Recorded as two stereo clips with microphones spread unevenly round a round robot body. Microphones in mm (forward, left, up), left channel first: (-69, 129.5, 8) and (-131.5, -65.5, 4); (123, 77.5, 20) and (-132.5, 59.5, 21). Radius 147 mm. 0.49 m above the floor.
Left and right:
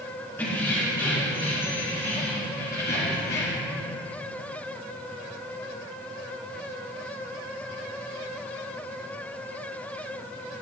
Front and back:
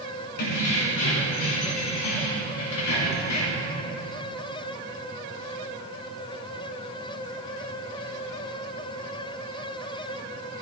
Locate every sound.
0.4 s keys jangling: 10° right, 3.5 m; by 3.7 s 20° left, 2.5 m